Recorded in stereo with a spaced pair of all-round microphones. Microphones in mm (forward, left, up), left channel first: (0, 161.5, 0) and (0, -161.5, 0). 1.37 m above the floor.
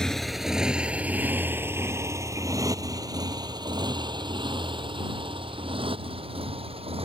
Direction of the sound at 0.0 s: Centre (ahead or behind).